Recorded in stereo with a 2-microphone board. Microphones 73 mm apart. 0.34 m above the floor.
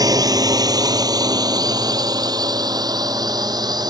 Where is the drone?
60° right (ahead or behind); by 3.9 s 65° right (ahead or behind).